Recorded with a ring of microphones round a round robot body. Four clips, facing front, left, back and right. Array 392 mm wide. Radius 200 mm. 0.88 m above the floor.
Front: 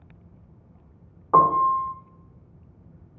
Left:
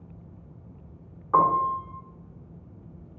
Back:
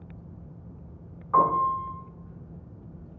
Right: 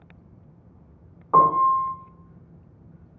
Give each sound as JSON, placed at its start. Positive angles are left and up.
{"t": 1.3, "sound": "a piano", "azimuth_deg": -30, "distance_m": 1.0}